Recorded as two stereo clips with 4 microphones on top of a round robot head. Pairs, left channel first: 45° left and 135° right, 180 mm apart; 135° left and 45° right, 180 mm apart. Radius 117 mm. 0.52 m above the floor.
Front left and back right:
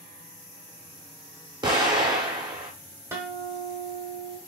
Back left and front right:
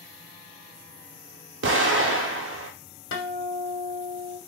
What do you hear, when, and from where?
1.6 s an explosion: 65° right, 0.6 m
3.1 s a guitar: 150° left, 0.7 m